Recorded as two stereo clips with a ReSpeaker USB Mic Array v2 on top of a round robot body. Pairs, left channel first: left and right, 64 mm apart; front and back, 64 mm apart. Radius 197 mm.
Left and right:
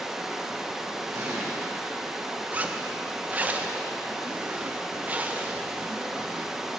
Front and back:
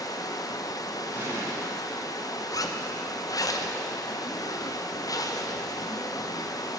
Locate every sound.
0.0 s running water: 5° right, 0.9 m
1.1 s an explosion: 135° right, 4 m
2.5 s a zipper: 25° right, 0.9 m